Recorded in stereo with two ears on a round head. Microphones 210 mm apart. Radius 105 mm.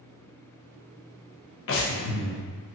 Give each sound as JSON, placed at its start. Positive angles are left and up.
{"t": 1.7, "sound": "breathing", "side_deg": 60, "distance_m": 0.5}